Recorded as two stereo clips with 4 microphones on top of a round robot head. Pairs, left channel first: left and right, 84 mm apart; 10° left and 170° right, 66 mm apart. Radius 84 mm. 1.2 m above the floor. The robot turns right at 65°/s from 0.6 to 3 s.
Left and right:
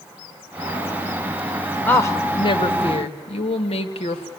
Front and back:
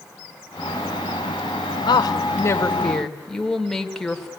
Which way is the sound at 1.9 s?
20° left.